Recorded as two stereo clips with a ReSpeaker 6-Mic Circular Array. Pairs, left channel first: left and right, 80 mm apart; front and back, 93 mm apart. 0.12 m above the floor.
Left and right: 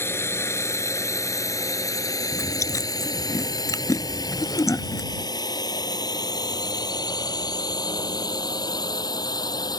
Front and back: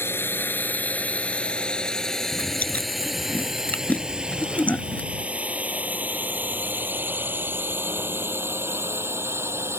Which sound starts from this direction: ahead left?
A drone, at 0.0 s.